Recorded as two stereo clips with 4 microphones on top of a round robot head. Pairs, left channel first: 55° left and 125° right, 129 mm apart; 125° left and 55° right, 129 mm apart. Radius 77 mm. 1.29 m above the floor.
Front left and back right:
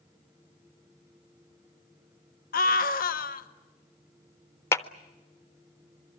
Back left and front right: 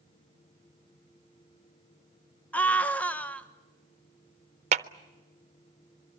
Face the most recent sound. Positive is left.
turn(degrees=-20)